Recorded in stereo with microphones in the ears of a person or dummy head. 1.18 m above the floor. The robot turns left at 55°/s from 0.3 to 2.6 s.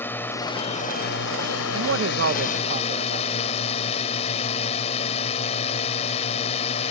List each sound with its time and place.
0.0 s a drone: 170° left; by 6.9 s 45° left
1.7 s a man speaking: 85° right; by 3.4 s 135° right